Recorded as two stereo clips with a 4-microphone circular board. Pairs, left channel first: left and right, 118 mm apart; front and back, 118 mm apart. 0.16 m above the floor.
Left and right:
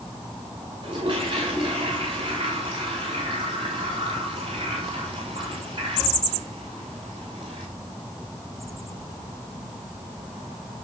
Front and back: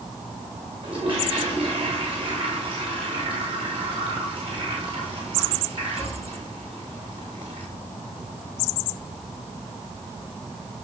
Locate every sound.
0.8 s a toilet flushing: 135° right, 7.5 m